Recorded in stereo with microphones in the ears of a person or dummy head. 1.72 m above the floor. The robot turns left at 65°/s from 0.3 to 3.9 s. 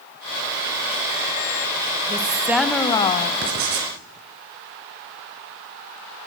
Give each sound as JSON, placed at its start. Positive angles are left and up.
{"t": 2.1, "sound": "a woman speaking", "azimuth_deg": -145, "distance_m": 0.6}
{"t": 3.4, "sound": "writing", "azimuth_deg": -80, "distance_m": 2.0}